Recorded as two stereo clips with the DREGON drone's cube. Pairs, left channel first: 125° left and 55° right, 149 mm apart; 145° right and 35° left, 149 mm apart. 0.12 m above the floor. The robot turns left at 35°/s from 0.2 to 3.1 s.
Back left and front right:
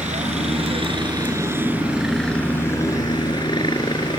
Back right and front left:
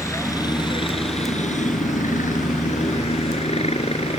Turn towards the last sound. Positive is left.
turn(degrees=180)